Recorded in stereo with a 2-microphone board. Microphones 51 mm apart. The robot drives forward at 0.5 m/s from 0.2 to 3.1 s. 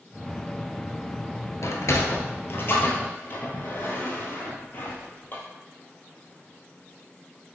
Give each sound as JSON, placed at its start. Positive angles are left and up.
{"t": 1.6, "sound": "a sliding door", "side_deg": 75, "distance_m": 0.7}